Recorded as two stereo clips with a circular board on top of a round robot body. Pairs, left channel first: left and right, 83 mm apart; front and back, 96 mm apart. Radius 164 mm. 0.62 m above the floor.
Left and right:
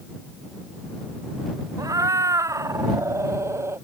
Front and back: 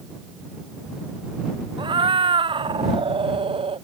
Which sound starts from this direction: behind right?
A cat meowing, at 1.8 s.